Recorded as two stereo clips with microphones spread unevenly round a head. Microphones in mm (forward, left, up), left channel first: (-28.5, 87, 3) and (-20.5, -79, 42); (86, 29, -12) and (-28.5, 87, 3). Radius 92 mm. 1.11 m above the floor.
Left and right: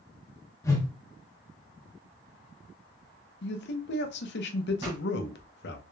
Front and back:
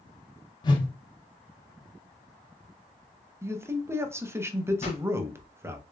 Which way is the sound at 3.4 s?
80° left.